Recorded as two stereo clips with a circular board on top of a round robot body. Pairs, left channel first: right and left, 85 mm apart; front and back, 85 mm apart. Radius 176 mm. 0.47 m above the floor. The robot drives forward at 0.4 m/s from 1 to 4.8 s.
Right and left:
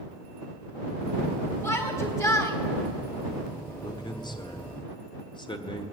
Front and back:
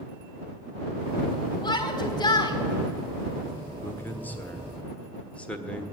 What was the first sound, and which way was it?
A shout, 35° right.